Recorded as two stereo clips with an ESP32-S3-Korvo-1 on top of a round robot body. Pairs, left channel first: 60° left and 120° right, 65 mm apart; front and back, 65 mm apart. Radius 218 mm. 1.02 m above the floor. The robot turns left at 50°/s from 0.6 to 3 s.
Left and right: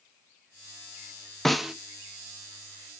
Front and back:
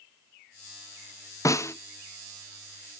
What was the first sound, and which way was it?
A snare drum, 25° right.